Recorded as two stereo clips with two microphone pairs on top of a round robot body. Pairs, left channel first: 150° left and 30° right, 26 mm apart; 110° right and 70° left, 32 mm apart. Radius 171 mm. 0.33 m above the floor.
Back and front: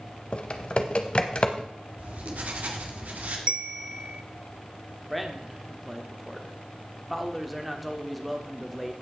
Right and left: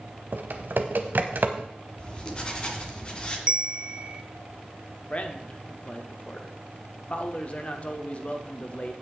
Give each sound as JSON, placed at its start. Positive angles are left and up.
{"t": 0.3, "sound": "typing on a keyboard", "azimuth_deg": 100, "distance_m": 0.7}
{"t": 2.0, "sound": "writing", "azimuth_deg": -45, "distance_m": 1.9}
{"t": 3.5, "sound": "a bell", "azimuth_deg": 15, "distance_m": 0.9}
{"t": 5.1, "sound": "a man speaking", "azimuth_deg": -115, "distance_m": 1.4}